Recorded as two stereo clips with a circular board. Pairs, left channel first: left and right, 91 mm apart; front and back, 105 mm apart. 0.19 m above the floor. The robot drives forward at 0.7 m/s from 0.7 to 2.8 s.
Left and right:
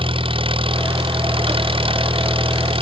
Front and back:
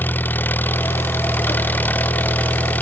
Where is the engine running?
70° right; by 2.8 s 75° right.